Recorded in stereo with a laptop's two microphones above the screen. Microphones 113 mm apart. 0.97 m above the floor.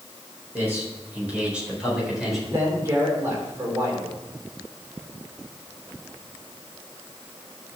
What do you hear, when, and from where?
0.5 s a man speaking: 20° right (ahead or behind), 4 m; by 2.4 s centre (ahead or behind), 4 m
2.5 s a man speaking: 30° right (ahead or behind), 3.5 m